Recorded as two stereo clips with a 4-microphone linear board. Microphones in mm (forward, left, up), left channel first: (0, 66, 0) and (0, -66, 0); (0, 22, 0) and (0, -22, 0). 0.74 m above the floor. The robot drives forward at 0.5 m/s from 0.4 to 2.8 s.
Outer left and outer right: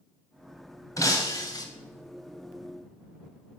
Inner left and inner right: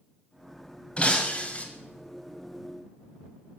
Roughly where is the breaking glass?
Left.